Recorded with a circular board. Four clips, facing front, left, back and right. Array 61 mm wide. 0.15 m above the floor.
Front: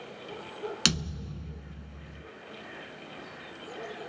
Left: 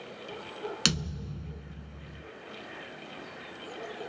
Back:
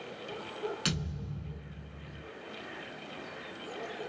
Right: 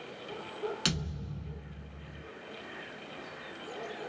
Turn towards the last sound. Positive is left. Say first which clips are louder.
# left 3 dB, front 4 dB
turn(degrees=35)